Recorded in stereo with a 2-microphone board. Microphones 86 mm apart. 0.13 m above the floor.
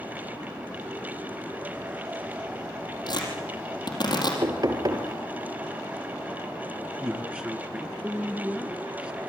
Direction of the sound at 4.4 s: 55° right (ahead or behind).